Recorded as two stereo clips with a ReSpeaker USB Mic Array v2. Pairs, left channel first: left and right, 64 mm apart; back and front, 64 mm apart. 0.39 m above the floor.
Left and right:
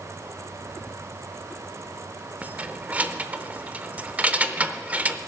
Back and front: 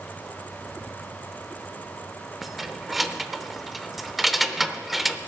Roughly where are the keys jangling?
Right.